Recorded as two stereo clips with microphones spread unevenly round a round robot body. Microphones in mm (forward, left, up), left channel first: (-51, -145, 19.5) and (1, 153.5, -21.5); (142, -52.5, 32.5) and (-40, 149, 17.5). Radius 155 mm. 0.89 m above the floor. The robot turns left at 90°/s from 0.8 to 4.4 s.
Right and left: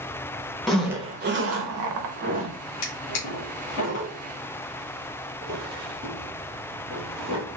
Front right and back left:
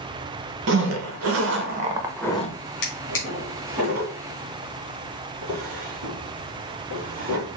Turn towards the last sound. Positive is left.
turn(degrees=155)